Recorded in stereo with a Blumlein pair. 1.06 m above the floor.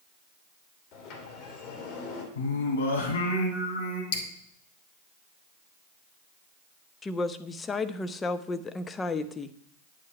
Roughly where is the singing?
Ahead left.